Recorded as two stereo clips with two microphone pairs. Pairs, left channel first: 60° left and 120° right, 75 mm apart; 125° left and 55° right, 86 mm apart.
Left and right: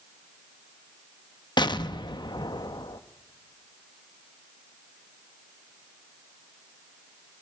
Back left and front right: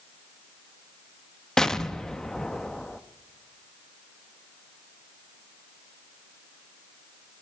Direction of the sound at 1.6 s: 45° left.